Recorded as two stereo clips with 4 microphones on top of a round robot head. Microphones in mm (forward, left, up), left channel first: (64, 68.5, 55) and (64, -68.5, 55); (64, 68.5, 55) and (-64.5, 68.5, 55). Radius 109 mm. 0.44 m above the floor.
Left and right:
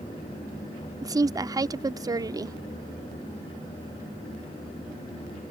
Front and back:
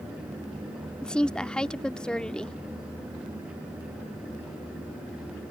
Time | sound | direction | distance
1.0 | a woman speaking | 75° right | ?